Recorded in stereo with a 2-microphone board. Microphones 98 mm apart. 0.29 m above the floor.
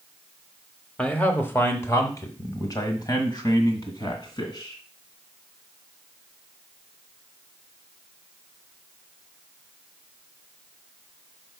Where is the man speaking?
10° left (ahead or behind), 0.9 m; by 4.8 s 50° left (ahead or behind), 2.5 m.